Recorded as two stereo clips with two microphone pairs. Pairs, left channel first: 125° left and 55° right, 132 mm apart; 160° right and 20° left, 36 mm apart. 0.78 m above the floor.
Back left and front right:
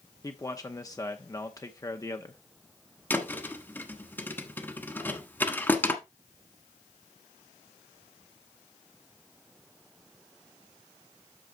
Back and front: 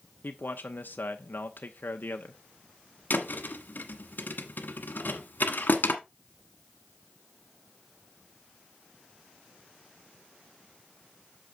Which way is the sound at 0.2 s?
175° right.